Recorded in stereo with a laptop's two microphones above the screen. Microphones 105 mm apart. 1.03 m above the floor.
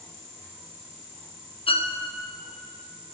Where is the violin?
60° left (ahead or behind), 0.9 m.